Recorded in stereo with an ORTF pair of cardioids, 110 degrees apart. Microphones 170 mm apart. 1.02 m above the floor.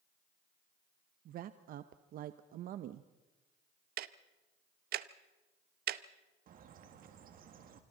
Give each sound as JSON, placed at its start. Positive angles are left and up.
{"t": 1.2, "sound": "a woman speaking", "azimuth_deg": -60, "distance_m": 0.8}
{"t": 4.0, "sound": "ticking", "azimuth_deg": -65, "distance_m": 0.8}
{"t": 6.5, "sound": "a bird", "azimuth_deg": -60, "distance_m": 1.9}